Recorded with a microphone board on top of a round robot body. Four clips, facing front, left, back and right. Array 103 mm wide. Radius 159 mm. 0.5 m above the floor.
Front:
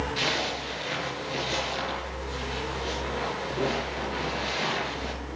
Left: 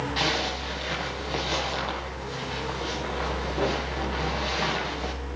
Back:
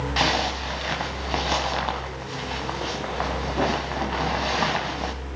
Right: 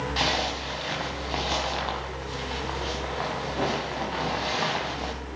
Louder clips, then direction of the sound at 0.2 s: Right 1 dB, back 6 dB; 175° right.